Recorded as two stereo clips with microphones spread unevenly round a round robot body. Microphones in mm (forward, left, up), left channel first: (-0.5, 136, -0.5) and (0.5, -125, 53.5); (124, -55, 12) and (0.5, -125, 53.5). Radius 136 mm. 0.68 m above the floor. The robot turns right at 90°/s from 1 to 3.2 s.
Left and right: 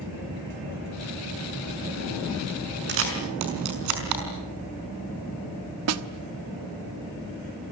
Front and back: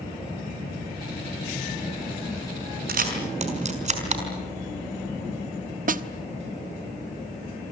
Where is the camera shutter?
140° right, 5.5 m; by 4.2 s 115° right, 5.5 m.